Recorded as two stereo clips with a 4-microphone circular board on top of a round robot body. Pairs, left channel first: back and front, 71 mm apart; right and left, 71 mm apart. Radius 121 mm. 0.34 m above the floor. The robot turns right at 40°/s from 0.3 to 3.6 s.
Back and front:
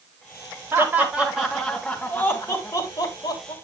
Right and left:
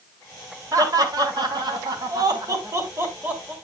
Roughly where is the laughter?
Ahead left.